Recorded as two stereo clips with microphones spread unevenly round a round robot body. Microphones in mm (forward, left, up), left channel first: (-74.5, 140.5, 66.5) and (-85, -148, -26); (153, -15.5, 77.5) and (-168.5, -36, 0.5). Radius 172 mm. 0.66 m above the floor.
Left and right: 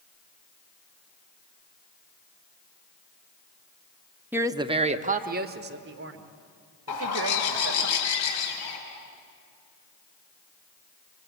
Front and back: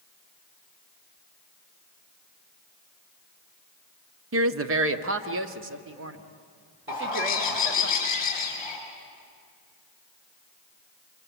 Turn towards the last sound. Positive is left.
turn(degrees=75)